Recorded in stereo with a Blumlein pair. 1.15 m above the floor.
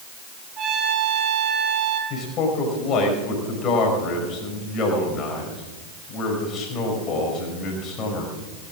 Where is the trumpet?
30° right, 2.5 m.